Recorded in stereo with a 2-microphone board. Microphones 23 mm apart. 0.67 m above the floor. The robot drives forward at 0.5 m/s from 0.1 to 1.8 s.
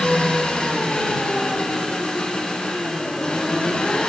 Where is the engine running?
50° left (ahead or behind), 7 m; by 4.1 s 45° left (ahead or behind), 7.5 m.